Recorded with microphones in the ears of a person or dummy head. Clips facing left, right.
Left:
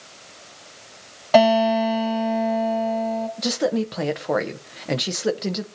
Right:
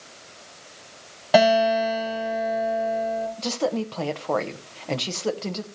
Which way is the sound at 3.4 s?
20° left (ahead or behind).